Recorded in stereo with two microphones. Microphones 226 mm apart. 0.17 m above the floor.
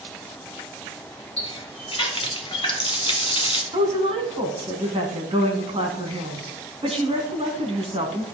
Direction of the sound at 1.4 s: 25° left (ahead or behind).